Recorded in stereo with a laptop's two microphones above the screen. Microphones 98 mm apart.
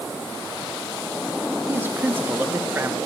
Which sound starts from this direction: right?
A man speaking, at 1.7 s.